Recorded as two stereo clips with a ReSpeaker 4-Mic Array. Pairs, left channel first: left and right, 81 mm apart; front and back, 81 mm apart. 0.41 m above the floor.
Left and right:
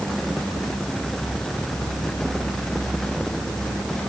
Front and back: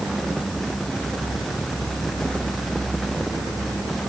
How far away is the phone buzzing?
No phone buzzing in this recording.